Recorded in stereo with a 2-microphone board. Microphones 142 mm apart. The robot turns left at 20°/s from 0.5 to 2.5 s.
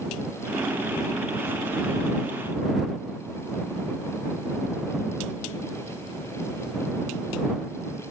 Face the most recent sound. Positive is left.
No sound to turn to.